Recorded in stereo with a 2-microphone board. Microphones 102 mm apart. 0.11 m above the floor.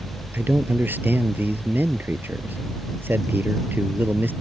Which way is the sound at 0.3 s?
20° right (ahead or behind).